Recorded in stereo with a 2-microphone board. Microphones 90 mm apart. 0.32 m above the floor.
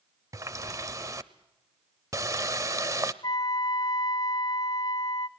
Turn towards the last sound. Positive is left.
turn(degrees=45)  # may be behind; listen again after turning